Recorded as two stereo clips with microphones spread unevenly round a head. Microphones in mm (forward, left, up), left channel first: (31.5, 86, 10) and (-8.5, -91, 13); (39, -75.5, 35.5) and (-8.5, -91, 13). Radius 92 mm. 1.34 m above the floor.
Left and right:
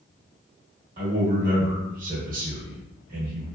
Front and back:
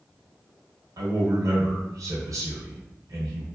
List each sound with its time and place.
1.0 s a man speaking: 150° right, 1.1 m